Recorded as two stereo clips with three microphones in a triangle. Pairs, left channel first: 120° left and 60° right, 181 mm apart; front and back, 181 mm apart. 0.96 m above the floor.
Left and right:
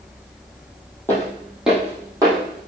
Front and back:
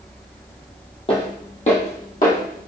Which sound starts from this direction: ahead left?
Footsteps, at 1.1 s.